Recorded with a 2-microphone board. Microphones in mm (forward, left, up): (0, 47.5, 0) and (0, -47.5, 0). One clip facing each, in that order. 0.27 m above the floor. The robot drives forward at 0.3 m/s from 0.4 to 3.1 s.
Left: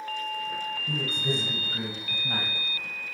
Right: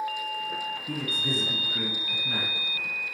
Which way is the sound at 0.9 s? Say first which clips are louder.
Left 3 dB; 40° left (ahead or behind).